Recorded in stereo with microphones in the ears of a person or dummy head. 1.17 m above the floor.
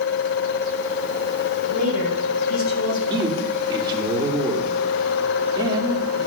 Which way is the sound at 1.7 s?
65° left (ahead or behind).